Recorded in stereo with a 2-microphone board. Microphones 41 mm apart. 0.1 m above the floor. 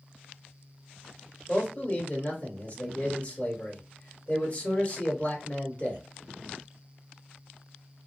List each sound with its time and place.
1.5 s a man speaking: 35° left (ahead or behind), 1.6 m